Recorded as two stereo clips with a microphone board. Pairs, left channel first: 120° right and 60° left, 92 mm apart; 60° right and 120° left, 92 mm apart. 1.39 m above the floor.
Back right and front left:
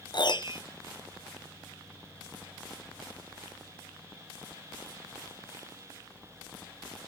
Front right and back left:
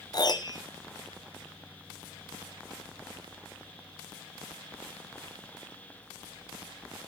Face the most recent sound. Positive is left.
turn(degrees=-95)